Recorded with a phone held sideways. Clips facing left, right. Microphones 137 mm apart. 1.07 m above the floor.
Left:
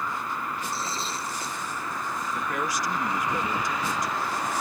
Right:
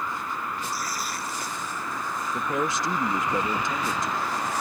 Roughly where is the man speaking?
Right.